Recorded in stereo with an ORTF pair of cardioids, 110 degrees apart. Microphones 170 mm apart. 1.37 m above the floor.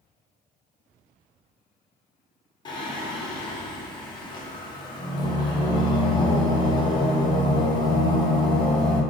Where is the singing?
25° left, 0.6 m.